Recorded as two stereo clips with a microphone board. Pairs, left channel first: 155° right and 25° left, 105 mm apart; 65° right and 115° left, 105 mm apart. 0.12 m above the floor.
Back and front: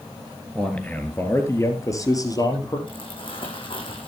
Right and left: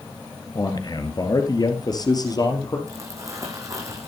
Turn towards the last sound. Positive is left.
turn(degrees=170)